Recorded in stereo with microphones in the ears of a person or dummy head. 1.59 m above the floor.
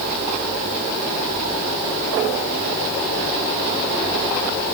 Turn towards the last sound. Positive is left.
No sound to turn to.